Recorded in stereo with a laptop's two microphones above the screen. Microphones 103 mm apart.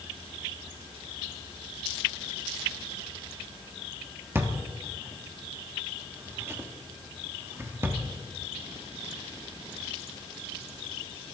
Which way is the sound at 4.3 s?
25° right (ahead or behind).